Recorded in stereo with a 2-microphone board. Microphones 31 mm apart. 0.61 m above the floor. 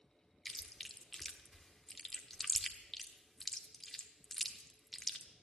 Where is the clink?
No clink in this recording.